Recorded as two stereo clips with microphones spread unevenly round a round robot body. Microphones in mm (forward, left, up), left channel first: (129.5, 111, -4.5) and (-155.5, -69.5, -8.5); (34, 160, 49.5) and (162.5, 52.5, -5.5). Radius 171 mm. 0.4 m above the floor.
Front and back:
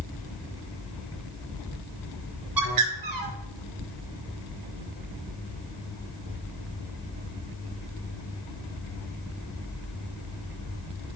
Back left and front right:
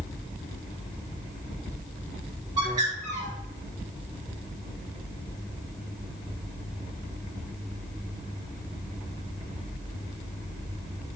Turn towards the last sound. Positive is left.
turn(degrees=-110)